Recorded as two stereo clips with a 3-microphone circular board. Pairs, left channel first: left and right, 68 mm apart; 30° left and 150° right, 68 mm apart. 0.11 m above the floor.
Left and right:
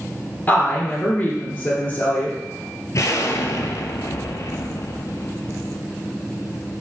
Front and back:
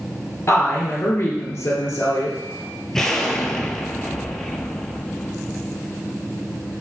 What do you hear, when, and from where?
0.5 s a woman speaking: 50° left, 1.7 m
2.9 s an explosion: 110° left, 0.5 m